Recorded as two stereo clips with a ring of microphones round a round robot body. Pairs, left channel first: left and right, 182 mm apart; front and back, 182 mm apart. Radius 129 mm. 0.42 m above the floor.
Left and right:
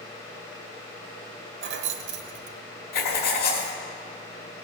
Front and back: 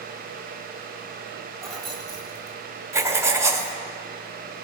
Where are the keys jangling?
90° right, 1.0 m.